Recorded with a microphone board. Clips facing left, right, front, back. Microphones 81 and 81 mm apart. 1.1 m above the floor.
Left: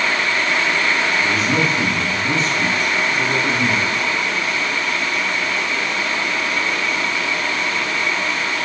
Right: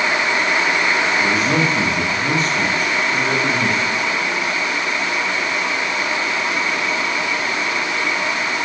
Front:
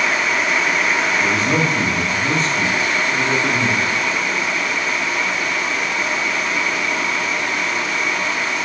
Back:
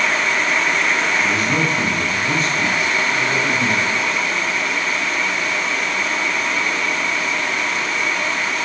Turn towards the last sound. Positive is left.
turn(degrees=-55)